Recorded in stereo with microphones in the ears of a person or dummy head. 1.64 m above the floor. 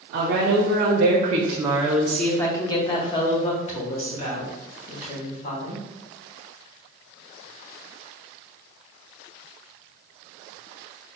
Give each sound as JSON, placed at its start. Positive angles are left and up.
{"t": 0.1, "sound": "a woman speaking", "side_deg": -65, "distance_m": 1.0}